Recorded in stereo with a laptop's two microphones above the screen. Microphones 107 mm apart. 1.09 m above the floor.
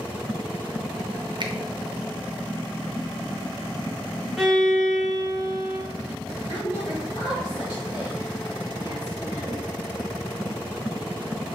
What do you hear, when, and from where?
1.4 s a finger snap: 50° right (ahead or behind), 0.5 m
4.4 s a violin: centre (ahead or behind), 2.5 m
6.5 s a woman speaking: 55° left (ahead or behind), 2 m